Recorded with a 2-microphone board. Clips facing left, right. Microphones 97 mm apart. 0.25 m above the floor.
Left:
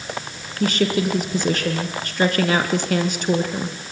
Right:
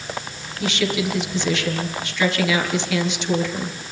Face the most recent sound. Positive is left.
turn(degrees=45)  # may be behind; listen again after turning